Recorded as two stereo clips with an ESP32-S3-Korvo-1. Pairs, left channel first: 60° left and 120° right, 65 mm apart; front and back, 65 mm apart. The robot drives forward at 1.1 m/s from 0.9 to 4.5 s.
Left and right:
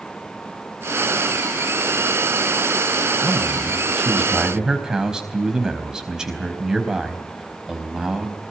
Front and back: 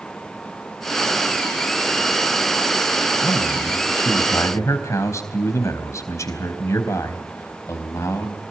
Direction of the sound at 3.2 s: 30° right.